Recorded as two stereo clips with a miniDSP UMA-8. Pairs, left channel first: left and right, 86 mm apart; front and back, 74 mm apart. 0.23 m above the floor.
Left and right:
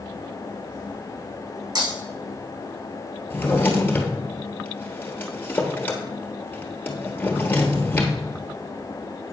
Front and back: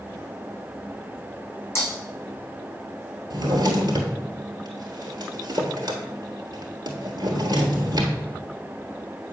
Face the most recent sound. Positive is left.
turn(degrees=160)